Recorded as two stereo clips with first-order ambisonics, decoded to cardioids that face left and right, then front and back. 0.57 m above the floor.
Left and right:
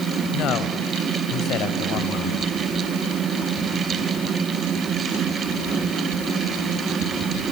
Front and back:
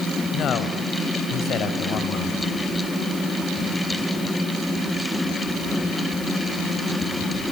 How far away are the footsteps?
I don't hear footsteps.